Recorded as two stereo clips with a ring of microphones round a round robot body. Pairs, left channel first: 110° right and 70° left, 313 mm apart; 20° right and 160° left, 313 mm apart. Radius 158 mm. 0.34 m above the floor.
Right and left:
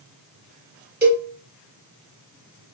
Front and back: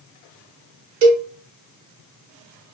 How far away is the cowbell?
About 1.1 m.